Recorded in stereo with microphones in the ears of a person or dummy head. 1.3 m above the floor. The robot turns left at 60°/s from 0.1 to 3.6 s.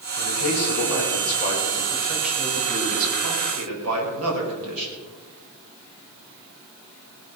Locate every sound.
0.2 s a man speaking: 120° left, 5.5 m; by 4.9 s 85° right, 5.5 m